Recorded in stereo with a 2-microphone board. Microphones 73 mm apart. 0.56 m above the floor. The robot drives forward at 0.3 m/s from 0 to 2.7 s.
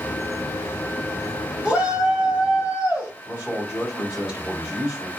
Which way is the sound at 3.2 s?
10° right (ahead or behind).